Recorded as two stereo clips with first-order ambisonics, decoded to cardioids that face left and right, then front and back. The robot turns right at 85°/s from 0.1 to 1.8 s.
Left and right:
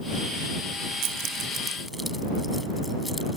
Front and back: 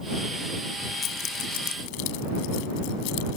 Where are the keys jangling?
65° right; by 3.4 s straight ahead.